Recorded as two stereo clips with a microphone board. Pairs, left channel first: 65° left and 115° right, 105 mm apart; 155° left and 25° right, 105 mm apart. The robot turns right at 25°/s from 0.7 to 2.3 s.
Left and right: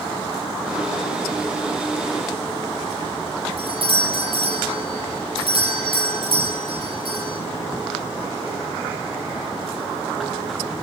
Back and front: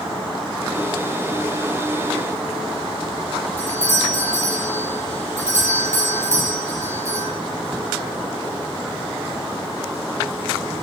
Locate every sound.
3.6 s a doorbell: 85° right, 6.5 m